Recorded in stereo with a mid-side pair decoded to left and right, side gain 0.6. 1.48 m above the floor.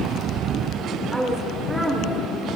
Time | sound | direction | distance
1.1 | a woman speaking | 10° right | 5 m